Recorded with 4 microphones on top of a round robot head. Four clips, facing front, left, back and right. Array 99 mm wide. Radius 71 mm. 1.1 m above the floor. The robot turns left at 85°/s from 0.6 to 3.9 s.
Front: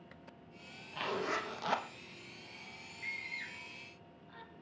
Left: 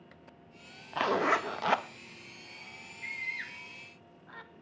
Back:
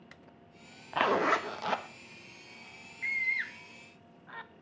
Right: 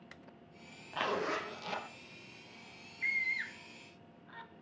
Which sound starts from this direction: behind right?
A scream, at 3.0 s.